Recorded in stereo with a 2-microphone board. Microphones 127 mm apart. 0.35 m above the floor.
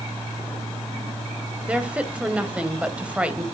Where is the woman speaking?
10° right (ahead or behind), 1.6 m.